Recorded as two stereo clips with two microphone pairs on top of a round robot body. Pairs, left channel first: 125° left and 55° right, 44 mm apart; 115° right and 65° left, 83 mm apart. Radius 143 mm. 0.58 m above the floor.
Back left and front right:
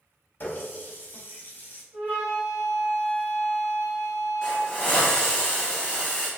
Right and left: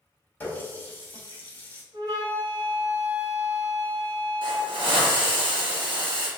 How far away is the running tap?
About 1.0 m.